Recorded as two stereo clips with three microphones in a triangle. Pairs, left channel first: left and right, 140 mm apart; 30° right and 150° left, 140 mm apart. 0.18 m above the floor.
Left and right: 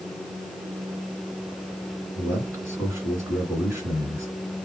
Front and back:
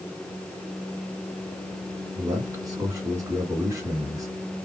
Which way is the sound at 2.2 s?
150° right.